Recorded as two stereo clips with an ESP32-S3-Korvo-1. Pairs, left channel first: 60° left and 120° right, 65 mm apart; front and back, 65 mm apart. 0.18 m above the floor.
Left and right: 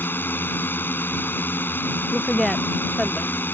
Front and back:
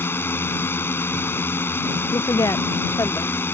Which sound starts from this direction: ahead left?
A drone, at 0.0 s.